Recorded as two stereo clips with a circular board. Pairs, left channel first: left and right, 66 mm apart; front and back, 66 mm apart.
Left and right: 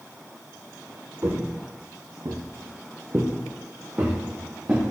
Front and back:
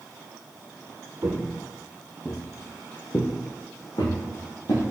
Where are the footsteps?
140° right, 0.9 m; by 4.8 s 20° right, 2.0 m.